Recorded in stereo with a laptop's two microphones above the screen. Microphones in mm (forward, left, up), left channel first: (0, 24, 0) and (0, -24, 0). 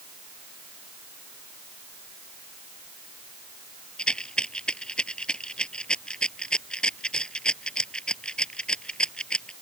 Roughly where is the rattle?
Centre.